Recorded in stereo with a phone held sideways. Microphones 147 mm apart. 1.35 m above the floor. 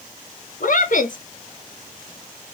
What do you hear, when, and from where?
0.6 s a woman speaking: 65° left (ahead or behind), 0.6 m